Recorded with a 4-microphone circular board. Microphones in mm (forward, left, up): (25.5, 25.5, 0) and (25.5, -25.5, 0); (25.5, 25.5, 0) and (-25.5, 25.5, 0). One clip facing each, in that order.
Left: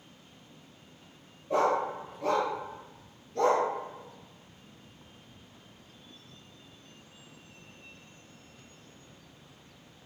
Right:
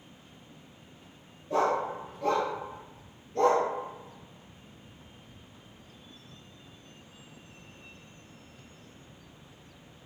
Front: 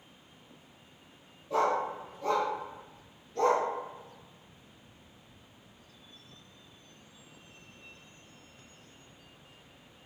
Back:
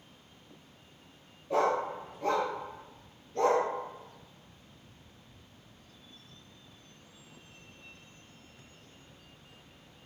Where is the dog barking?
140° left, 1.0 m; by 3.6 s 130° right, 1.2 m.